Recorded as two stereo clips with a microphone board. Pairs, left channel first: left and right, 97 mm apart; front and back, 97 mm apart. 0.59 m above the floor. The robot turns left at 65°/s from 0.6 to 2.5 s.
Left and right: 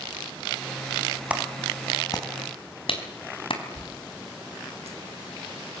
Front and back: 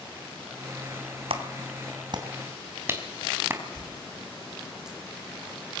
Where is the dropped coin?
95° right, 8 m.